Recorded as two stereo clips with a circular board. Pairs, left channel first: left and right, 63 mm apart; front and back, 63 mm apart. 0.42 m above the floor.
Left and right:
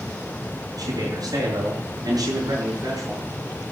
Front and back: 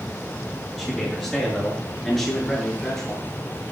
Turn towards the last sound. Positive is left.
turn(degrees=-75)